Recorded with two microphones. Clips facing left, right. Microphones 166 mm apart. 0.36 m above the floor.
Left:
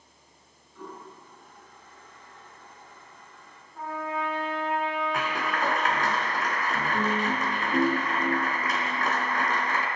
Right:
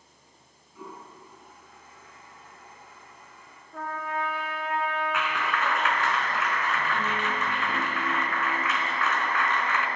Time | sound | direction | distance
0.8 | a toilet flushing | 10° right (ahead or behind) | 5.5 m
3.7 | a trumpet | 75° right (ahead or behind) | 10 m
5.1 | a clap | 40° left (ahead or behind) | 3 m